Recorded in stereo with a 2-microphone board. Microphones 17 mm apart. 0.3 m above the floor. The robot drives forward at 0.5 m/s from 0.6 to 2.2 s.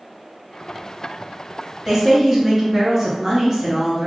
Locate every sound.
1.9 s a woman speaking: 10° right (ahead or behind), 1.7 m